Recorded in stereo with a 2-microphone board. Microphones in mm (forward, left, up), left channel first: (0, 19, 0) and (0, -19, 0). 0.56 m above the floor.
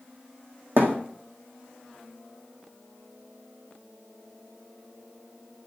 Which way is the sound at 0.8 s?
65° right (ahead or behind).